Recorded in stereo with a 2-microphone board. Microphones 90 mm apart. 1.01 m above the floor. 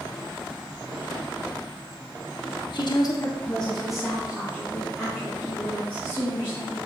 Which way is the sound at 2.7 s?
60° left (ahead or behind).